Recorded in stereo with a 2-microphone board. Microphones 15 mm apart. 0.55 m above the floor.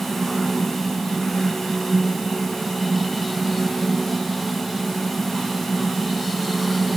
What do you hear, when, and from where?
Only background noise.